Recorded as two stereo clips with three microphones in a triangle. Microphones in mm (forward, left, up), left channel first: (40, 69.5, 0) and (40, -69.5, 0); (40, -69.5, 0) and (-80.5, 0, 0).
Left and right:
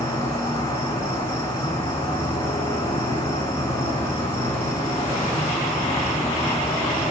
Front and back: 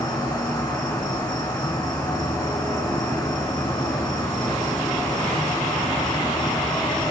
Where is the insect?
25° left, 2 m.